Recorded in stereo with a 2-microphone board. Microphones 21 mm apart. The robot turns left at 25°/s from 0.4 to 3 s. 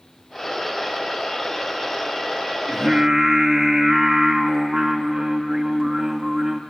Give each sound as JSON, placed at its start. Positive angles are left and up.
{"t": 2.7, "sound": "singing", "side_deg": -45, "distance_m": 2.0}